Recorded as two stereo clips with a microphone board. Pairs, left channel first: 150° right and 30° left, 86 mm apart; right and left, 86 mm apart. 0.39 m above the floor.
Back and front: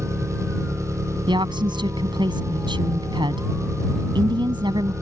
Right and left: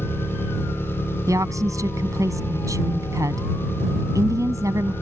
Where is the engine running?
25° right.